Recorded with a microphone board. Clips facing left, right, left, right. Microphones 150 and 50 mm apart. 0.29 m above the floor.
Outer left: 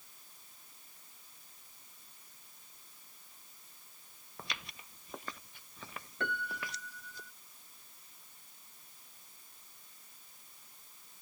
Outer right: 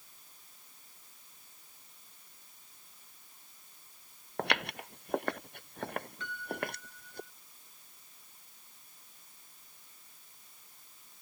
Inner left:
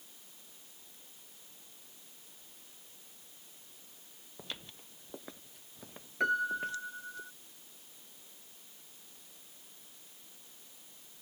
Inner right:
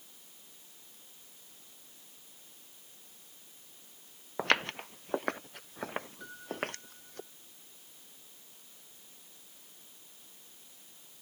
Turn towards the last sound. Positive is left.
turn(degrees=65)  # may be behind; listen again after turning